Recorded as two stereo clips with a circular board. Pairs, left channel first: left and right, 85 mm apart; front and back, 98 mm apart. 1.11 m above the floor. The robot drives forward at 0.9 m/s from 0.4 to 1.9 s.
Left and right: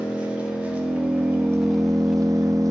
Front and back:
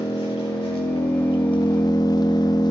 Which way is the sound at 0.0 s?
15° right.